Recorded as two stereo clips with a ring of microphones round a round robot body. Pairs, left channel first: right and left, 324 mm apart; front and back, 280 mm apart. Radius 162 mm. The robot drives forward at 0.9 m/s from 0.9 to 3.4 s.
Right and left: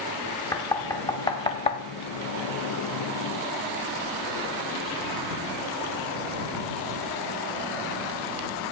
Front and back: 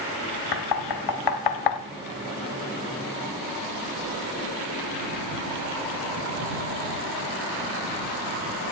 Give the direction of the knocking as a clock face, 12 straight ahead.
12 o'clock.